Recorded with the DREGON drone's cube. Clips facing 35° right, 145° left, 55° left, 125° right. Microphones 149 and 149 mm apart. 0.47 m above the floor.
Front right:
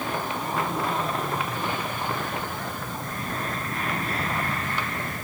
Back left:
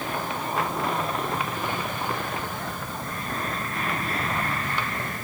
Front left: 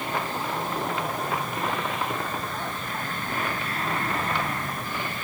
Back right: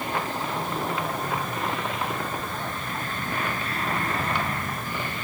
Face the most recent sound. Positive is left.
No sound to turn to.